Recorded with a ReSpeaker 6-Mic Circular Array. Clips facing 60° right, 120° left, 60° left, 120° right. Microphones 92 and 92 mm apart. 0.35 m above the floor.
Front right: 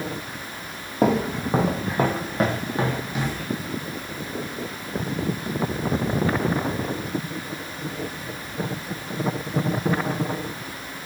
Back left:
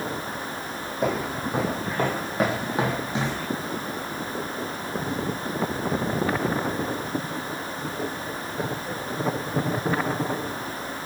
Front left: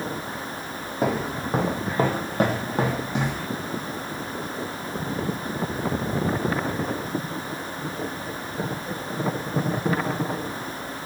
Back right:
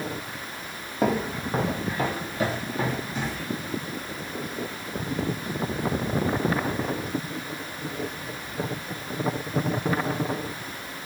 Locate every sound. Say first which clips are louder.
1.0 s footsteps: front right 5 dB, even; 30° right, 0.9 m; by 3.4 s 60° left, 1.1 m